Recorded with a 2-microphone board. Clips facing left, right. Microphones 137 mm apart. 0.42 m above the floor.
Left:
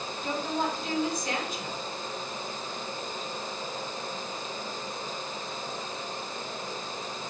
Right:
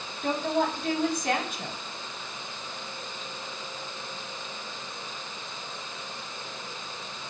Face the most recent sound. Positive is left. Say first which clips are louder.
# right 4 dB
turn(degrees=-65)  # may be behind; listen again after turning